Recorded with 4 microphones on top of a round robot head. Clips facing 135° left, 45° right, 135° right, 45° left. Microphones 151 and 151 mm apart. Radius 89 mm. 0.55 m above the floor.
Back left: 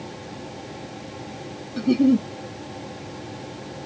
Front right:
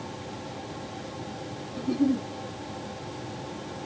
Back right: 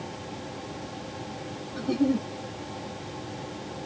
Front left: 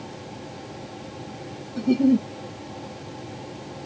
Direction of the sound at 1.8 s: 110° left.